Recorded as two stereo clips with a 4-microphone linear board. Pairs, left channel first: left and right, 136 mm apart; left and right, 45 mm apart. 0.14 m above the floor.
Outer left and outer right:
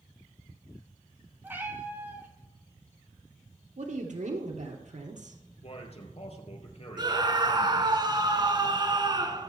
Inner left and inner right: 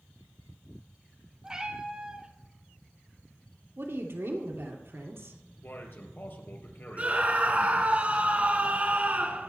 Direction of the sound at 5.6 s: 50° left (ahead or behind).